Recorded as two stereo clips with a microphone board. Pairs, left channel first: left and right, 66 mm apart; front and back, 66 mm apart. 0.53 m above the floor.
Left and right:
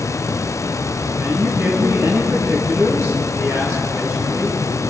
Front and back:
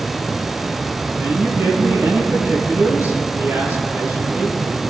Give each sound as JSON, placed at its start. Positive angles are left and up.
{"t": 1.2, "sound": "a man speaking", "azimuth_deg": -130, "distance_m": 5.0}